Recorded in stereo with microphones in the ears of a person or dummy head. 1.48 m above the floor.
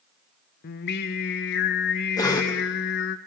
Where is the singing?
60° left (ahead or behind), 0.8 m.